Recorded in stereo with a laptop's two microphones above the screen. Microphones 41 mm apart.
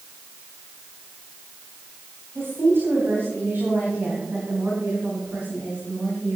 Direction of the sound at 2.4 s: 75° right (ahead or behind).